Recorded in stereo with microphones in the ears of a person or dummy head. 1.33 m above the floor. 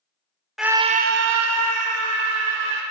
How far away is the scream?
About 0.7 m.